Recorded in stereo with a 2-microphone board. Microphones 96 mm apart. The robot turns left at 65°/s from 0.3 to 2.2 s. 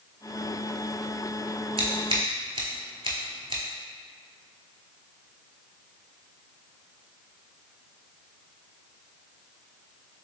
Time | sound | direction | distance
1.8 | scissors | 80° right | 0.7 m